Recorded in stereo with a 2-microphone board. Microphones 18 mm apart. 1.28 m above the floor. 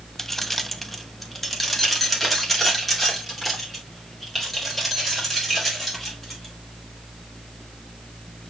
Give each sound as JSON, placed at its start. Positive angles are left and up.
{"t": 0.2, "sound": "keys jangling", "side_deg": 15, "distance_m": 0.6}